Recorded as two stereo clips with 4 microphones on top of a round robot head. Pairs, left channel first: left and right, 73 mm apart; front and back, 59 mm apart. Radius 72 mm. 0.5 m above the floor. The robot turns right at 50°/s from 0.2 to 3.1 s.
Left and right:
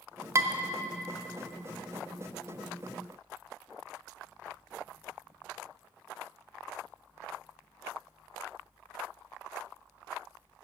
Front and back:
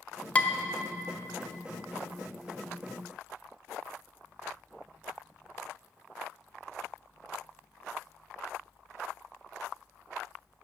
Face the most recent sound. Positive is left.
turn(degrees=75)